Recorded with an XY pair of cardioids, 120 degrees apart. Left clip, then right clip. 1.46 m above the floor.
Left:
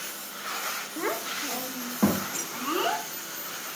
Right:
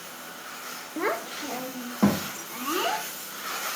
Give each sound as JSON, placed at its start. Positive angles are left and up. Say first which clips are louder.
{"t": 1.0, "sound": "a child speaking", "louder": "right 4 dB", "azimuth_deg": -20, "distance_m": 1.6}